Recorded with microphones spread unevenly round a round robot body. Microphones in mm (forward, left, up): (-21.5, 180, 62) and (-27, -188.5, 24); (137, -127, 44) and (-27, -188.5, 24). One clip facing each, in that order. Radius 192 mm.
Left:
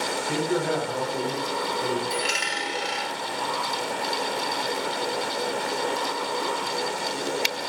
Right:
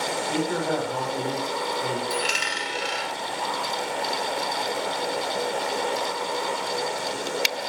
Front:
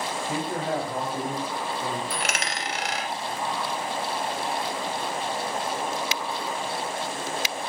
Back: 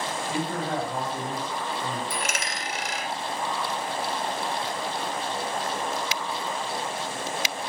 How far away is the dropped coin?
About 0.7 m.